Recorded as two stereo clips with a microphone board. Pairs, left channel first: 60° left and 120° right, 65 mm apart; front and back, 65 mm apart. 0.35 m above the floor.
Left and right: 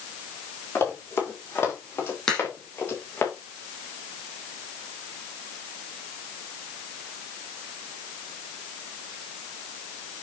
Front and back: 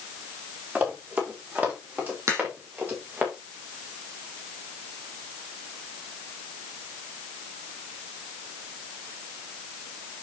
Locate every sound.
0.8 s running footsteps: 115° left, 7.5 m; by 3.3 s 125° left, 6 m
2.3 s a crack: 140° left, 5 m